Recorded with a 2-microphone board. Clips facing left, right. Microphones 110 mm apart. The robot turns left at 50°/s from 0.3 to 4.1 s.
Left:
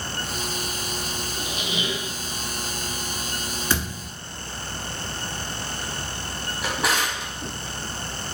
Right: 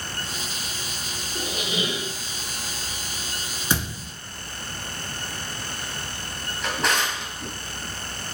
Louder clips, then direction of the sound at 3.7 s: Right 2 dB; 15° right (ahead or behind).